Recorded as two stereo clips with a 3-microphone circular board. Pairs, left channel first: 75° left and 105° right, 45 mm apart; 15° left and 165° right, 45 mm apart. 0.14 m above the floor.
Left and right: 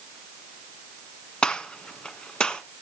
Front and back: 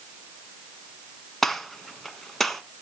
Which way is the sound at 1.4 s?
95° left.